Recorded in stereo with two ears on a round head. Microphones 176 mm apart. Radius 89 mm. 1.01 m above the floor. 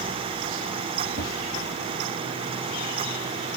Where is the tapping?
50° left (ahead or behind), 1.7 m.